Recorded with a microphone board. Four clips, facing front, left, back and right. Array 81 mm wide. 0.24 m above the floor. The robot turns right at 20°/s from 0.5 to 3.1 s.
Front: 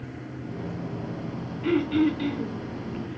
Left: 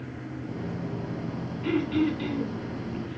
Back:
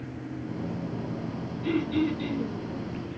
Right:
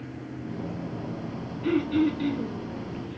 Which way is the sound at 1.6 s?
10° left.